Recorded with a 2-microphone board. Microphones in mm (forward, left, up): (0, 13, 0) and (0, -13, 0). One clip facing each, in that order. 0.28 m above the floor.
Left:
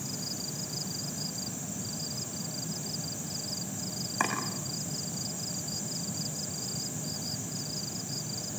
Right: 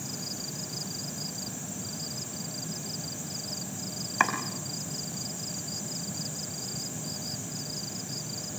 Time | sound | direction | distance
4.2 | chopping | 35° right (ahead or behind) | 5 m